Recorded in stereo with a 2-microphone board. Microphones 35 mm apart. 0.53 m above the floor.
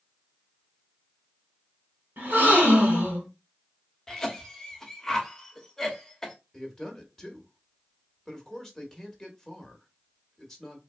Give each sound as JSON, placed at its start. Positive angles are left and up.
{"t": 2.2, "sound": "a gasp", "side_deg": -65, "distance_m": 2.0}
{"t": 4.1, "sound": "a cough", "side_deg": 15, "distance_m": 1.1}
{"t": 6.5, "sound": "a man speaking", "side_deg": 15, "distance_m": 1.4}